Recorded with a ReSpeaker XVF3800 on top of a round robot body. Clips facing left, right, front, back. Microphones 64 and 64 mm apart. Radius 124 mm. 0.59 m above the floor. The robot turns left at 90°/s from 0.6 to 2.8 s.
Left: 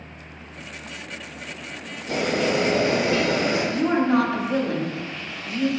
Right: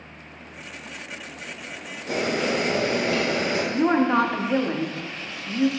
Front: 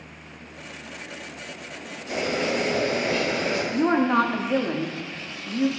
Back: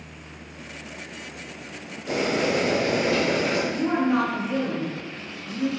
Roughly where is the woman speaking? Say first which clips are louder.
Right 2 dB, front 5 dB; ahead right.